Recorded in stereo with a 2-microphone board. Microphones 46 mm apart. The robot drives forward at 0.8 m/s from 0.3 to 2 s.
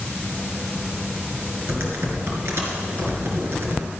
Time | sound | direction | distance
1.7 | typing on a keyboard | 55° right (ahead or behind) | 3 m